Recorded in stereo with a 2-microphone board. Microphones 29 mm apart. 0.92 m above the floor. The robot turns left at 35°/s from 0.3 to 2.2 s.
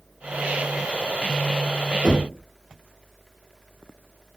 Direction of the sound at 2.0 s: 15° right (ahead or behind).